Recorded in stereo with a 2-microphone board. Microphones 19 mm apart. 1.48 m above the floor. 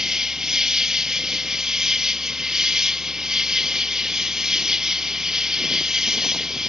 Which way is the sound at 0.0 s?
35° right (ahead or behind).